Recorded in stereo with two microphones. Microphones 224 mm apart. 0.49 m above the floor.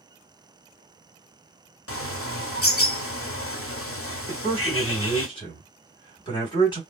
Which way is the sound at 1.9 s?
75° left (ahead or behind).